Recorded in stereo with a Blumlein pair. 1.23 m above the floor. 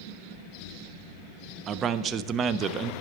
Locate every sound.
1.7 s a man speaking: 25° right, 0.5 m